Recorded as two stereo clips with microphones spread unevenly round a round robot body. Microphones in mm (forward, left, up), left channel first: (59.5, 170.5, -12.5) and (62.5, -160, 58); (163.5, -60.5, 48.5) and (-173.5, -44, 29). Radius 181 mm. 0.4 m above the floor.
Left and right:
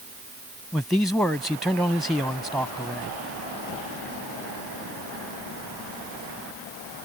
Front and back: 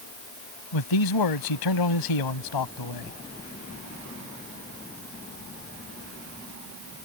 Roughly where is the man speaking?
Ahead.